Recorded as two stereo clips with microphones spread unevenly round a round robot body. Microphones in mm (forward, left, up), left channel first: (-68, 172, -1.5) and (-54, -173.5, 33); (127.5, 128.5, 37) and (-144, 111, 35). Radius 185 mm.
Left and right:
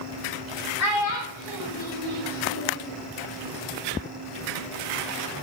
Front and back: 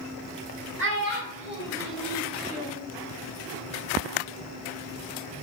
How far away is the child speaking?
About 1.1 m.